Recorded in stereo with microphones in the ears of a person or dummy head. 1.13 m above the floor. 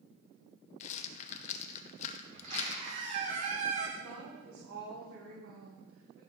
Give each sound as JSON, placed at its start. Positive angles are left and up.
{"t": 0.8, "sound": "a rattle", "side_deg": 40, "distance_m": 0.6}
{"t": 2.3, "sound": "a squeak", "side_deg": -45, "distance_m": 1.8}
{"t": 4.0, "sound": "a woman speaking", "side_deg": -80, "distance_m": 2.0}